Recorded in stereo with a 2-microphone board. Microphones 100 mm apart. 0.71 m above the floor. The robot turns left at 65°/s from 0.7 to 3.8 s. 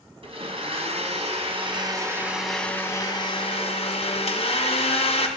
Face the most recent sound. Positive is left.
turn(degrees=95)